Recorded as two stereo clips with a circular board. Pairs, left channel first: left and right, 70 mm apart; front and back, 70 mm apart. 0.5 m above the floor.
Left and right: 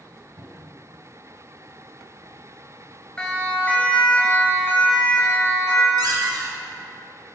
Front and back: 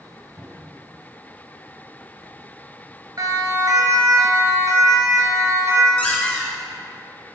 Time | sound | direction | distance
0.4 | a cupboard door | 125° right | 4.5 m
3.2 | a siren | 165° left | 3 m
6.0 | a squeak | 75° right | 4 m